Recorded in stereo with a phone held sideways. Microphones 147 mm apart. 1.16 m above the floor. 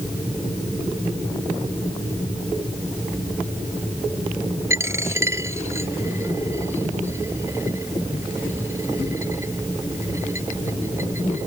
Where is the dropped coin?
20° right (ahead or behind).